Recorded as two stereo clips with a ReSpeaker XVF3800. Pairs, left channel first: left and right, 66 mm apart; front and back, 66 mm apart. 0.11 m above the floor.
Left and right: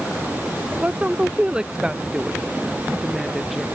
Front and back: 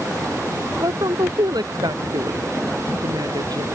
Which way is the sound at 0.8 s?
160° right.